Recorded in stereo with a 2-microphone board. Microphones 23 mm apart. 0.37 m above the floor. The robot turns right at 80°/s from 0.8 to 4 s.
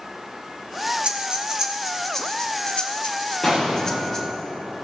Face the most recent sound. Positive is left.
turn(degrees=65)